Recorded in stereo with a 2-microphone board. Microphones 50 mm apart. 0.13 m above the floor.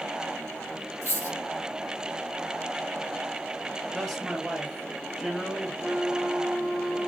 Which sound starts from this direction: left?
A dropped coin, at 1.0 s.